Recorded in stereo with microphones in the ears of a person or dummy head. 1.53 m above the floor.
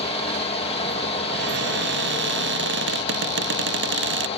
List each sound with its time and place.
0.0 s a fan: 25° left (ahead or behind)
1.3 s a cupboard door: 60° right (ahead or behind)